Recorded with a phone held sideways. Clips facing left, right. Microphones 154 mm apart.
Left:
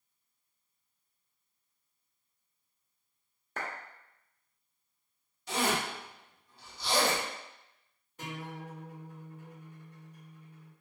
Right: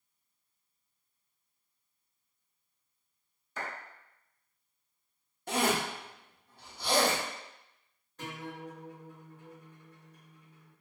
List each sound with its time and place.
3.6 s a clap: 65° left (ahead or behind), 0.9 m
5.5 s a zipper: 55° right (ahead or behind), 0.9 m
8.2 s a guitar: 10° left (ahead or behind), 1.3 m